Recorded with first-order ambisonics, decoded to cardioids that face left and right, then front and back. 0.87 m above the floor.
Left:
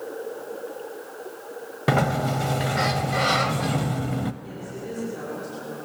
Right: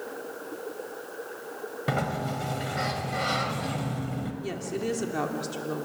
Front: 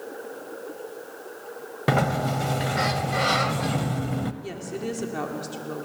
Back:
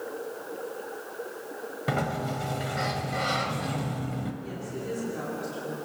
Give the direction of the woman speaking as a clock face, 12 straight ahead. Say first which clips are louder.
Right 4 dB, front 3 dB; 2 o'clock.